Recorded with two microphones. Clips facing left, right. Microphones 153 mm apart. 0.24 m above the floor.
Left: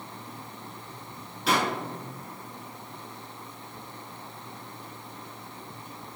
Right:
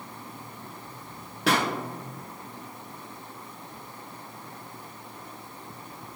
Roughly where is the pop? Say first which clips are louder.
Right 1 dB; right.